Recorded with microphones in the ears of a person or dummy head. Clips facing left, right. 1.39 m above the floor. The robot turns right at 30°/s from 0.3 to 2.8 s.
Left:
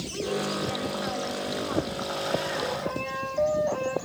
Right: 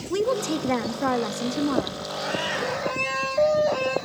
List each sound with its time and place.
0.1 s a woman speaking: 120° right, 1.0 m; by 2.0 s 65° right, 1.0 m